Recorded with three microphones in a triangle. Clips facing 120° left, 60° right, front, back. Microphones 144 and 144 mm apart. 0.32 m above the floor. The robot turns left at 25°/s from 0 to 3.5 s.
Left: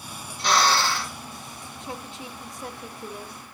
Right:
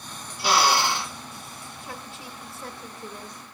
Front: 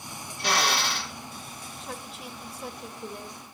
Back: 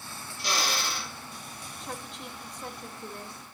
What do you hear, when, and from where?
0.4 s a drill: 25° left, 1.7 m; by 1.1 s 5° left, 1.7 m
1.8 s a woman speaking: 90° left, 1.2 m; by 3.5 s 50° left, 1.2 m